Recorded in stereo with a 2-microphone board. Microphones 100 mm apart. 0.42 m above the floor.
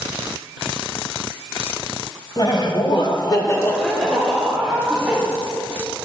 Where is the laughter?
50° left (ahead or behind), 1.8 m; by 5.2 s 15° right (ahead or behind), 2.5 m.